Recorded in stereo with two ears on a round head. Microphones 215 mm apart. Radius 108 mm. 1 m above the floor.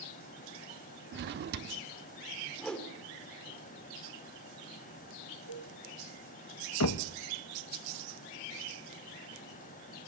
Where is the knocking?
65° left (ahead or behind), 0.9 m.